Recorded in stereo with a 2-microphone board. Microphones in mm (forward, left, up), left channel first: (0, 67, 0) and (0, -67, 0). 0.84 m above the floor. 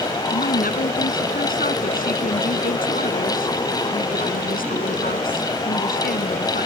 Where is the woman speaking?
85° left.